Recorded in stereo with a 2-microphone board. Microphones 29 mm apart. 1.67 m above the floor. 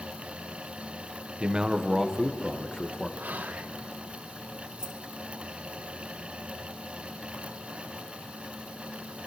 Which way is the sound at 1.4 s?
30° right (ahead or behind).